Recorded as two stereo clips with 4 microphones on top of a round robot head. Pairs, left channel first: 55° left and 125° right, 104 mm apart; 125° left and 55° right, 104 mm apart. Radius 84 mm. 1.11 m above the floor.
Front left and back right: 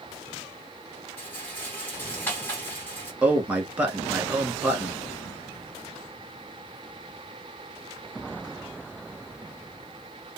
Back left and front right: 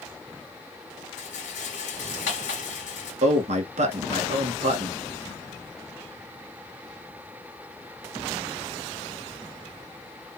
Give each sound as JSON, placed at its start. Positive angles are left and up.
{"t": 1.2, "sound": "a rattle", "azimuth_deg": 130, "distance_m": 1.5}
{"t": 3.2, "sound": "a man speaking", "azimuth_deg": -45, "distance_m": 1.5}